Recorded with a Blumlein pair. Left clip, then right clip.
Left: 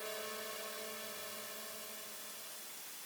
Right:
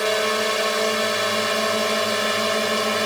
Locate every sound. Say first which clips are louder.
0.0 s a drone: right 23 dB; 50° right; by 3.1 s 45° right